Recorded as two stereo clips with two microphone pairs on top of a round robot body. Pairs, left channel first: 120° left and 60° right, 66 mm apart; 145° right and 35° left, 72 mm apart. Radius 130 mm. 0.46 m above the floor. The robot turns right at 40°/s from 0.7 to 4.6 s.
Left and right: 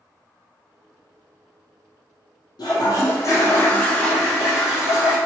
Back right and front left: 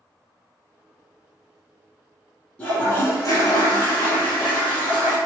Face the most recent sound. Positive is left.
turn(degrees=-140)